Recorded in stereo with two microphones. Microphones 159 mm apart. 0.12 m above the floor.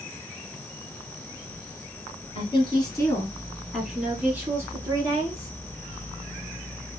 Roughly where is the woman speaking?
Left.